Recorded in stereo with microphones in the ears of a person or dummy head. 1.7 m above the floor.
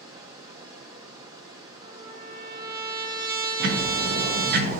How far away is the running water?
About 2.5 m.